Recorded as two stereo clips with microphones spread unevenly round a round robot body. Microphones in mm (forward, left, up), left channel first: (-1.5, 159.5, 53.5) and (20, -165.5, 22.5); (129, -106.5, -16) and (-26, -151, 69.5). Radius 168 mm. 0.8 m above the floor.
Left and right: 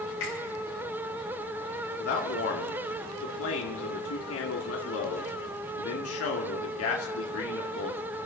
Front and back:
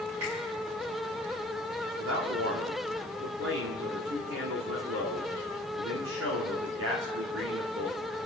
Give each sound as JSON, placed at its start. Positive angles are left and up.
{"t": 0.2, "sound": "a finger snap", "azimuth_deg": 145, "distance_m": 8.0}
{"t": 2.0, "sound": "a man speaking", "azimuth_deg": 145, "distance_m": 1.8}